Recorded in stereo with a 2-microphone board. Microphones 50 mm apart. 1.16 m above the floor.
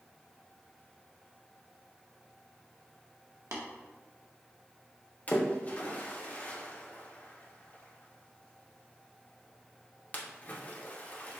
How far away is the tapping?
About 0.9 m.